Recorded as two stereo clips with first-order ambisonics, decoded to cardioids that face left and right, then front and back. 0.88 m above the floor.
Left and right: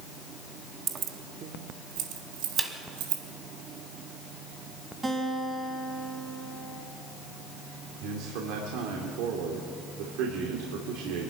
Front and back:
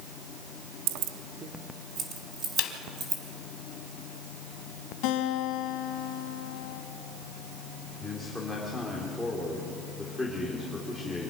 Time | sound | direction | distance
0.9 | keys jangling | 160° right | 0.7 m
2.6 | a snare drum | straight ahead | 1.4 m
5.0 | a guitar | 15° right | 3 m
8.0 | a man speaking | 85° right | 2.5 m